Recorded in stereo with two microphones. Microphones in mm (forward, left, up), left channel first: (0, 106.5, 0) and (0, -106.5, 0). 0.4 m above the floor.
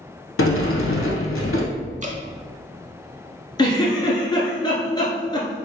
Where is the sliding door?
75° left (ahead or behind), 0.7 m.